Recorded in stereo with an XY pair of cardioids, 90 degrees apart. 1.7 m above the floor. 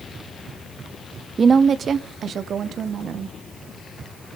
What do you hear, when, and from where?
1.4 s a woman speaking: 40° right, 0.8 m; by 3.4 s 70° right, 2 m